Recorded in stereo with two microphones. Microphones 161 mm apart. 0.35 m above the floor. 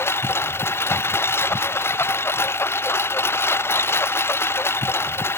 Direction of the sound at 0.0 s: 15° left (ahead or behind).